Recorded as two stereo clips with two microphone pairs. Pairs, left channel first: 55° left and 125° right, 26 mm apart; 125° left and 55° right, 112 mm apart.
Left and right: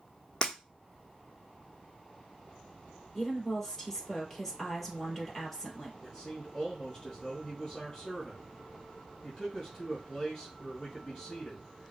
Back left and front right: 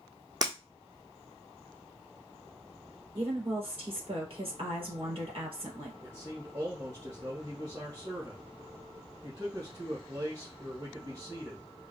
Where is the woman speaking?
25° right, 3 m.